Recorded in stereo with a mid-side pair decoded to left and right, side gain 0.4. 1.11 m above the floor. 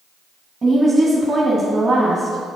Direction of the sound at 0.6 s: 30° right.